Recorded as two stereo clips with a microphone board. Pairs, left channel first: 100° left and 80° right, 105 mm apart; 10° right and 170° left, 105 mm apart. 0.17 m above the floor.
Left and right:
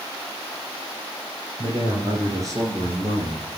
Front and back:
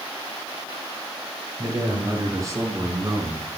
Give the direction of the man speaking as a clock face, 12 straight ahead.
4 o'clock.